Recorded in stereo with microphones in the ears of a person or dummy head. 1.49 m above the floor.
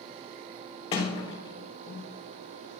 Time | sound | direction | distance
0.9 | a sliding door | 35° left (ahead or behind) | 2 m